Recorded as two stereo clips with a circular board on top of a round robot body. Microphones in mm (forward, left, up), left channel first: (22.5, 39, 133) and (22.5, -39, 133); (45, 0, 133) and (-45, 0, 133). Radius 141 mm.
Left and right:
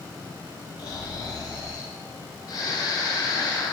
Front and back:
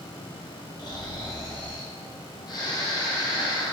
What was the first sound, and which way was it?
Snoring, 45° left.